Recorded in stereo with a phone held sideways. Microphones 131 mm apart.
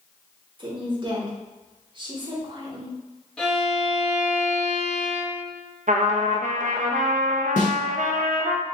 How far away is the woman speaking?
About 1.5 m.